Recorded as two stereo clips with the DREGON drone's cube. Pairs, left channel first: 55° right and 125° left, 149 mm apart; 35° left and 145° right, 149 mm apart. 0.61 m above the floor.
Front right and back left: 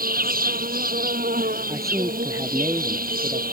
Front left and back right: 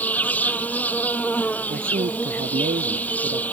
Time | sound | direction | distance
0.0 | an insect | 115° left | ?
1.7 | a man speaking | 165° right | ?